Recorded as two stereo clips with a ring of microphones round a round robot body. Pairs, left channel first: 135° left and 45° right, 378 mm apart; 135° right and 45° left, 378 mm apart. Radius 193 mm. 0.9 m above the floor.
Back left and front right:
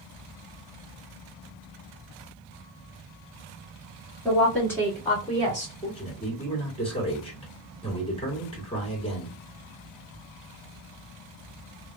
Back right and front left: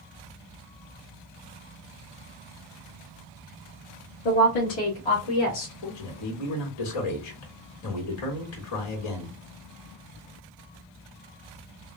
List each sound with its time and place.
4.2 s a woman speaking: 135° right, 1.9 m; by 5.7 s 155° right, 2.5 m
5.8 s a man speaking: 150° right, 2.5 m